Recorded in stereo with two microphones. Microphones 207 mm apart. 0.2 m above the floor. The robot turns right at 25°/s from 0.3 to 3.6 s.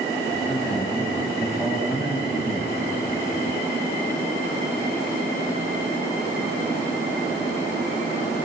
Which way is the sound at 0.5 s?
5° left (ahead or behind).